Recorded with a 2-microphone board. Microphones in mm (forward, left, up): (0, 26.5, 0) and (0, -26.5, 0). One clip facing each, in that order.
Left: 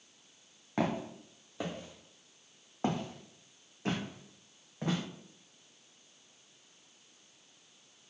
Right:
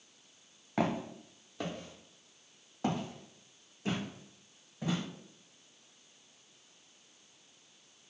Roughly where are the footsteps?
Centre.